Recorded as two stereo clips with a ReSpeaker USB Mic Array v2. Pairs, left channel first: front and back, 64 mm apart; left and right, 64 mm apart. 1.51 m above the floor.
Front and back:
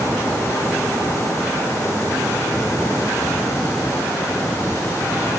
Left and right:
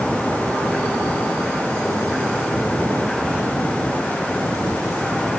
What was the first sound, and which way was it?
Only background noise.